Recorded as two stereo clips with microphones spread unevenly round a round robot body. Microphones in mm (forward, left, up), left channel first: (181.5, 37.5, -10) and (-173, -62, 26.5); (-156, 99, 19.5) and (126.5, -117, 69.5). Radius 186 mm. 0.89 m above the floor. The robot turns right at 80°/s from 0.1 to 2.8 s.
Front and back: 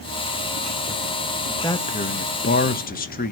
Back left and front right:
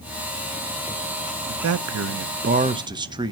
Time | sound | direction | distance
1.5 | a man speaking | 60° right | 0.8 m